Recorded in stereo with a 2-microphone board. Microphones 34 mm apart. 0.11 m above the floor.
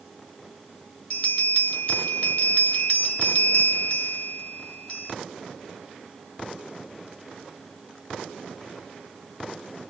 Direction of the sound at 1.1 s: 40° left (ahead or behind).